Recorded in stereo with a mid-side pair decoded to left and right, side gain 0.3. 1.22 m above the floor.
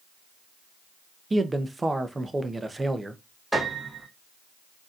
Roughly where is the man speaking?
Ahead right.